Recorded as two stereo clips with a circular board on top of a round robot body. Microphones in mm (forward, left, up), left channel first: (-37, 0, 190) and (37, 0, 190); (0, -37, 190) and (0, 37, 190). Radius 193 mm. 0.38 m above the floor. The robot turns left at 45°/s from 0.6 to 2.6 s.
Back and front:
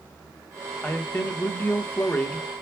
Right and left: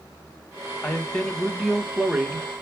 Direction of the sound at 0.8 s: 150° right.